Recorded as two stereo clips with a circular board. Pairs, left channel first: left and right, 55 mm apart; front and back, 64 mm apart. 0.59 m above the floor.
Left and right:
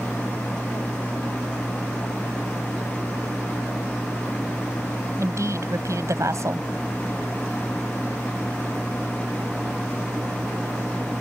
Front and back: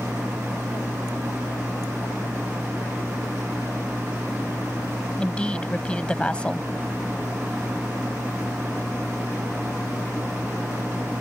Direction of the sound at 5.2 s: 75° right.